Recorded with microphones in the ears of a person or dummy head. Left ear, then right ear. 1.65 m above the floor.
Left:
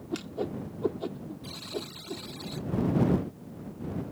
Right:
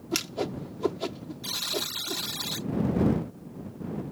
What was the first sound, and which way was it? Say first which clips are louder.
A whoosh: right 4 dB; 70° right (ahead or behind).